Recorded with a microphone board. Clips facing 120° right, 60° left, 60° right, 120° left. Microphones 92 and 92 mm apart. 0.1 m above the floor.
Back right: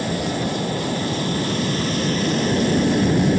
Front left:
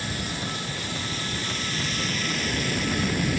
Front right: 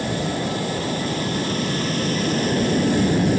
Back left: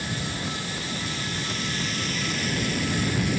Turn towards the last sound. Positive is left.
turn(degrees=-85)